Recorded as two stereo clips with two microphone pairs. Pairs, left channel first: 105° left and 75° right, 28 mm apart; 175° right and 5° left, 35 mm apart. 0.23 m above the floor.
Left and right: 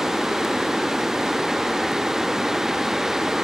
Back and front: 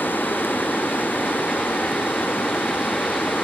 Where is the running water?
145° right.